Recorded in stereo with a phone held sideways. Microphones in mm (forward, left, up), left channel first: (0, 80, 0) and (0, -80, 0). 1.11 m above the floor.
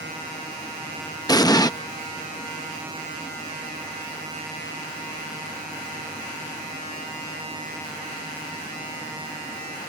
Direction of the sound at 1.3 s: 25° left (ahead or behind).